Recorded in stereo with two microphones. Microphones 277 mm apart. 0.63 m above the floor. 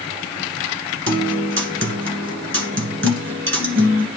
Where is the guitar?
50° right (ahead or behind), 1.4 m.